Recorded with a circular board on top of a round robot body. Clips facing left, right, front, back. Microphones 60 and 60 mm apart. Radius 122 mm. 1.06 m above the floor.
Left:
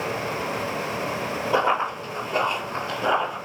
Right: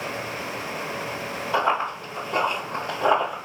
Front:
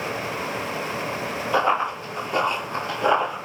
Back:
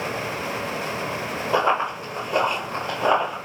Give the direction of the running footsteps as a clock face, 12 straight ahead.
9 o'clock.